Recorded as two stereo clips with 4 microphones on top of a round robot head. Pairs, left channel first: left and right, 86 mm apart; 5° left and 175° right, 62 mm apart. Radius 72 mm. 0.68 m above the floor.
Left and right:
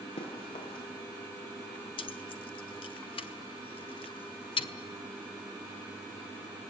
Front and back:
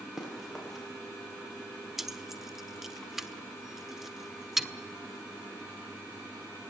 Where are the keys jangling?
100° left, 1.3 m.